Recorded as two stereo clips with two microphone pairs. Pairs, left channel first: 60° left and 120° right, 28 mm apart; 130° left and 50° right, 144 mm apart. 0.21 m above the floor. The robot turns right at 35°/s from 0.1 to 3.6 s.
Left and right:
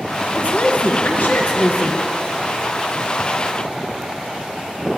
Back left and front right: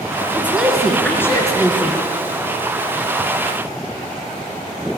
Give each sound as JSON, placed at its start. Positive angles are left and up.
{"t": 0.3, "sound": "a woman speaking", "azimuth_deg": 25, "distance_m": 2.5}